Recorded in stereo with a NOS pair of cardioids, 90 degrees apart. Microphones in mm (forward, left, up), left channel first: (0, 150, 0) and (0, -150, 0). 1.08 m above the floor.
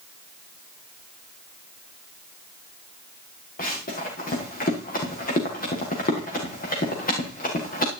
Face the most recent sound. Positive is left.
turn(degrees=30)